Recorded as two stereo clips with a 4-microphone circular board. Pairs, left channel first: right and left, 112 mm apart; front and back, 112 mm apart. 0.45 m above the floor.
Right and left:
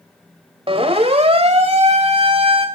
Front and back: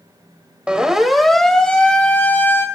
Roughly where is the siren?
Left.